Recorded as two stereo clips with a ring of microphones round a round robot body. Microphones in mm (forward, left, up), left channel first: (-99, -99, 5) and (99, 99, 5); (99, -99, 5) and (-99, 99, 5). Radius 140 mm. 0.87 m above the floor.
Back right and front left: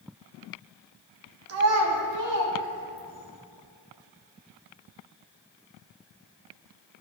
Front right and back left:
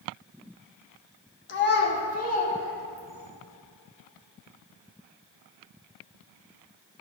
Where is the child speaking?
5° left, 1.2 m; by 3.3 s 25° left, 3 m.